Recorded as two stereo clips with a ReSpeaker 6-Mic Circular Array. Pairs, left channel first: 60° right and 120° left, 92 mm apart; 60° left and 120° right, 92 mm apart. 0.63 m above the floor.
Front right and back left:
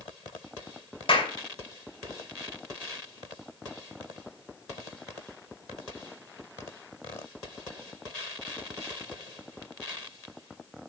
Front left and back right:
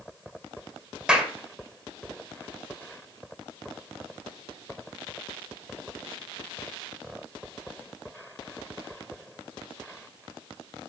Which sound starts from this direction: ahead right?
A clap, at 1.1 s.